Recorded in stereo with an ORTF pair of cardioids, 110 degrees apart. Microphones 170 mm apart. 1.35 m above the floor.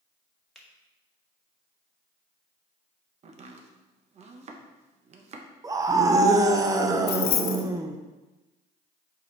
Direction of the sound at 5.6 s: 20° right.